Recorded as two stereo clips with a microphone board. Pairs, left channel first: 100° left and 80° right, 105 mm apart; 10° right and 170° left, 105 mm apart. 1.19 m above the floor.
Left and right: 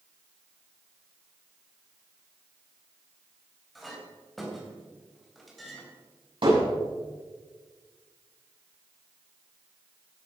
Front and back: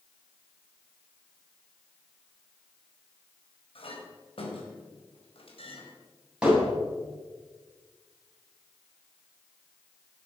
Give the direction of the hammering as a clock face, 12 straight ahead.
4 o'clock.